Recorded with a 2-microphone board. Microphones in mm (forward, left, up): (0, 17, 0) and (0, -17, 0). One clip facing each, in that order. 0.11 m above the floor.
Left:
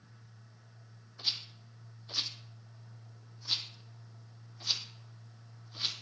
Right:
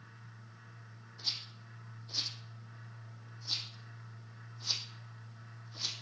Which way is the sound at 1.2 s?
35° left (ahead or behind).